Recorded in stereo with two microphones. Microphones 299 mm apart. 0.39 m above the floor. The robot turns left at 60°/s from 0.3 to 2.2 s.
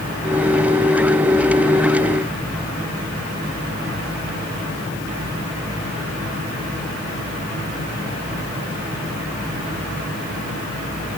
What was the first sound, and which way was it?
Only background noise.